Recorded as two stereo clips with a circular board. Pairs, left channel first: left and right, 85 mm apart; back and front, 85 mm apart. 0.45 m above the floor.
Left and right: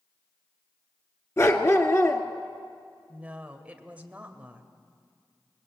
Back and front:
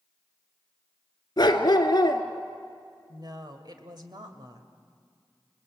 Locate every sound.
1.4 s a dog barking: 145° left, 1.6 m
3.1 s a woman speaking: 20° right, 1.9 m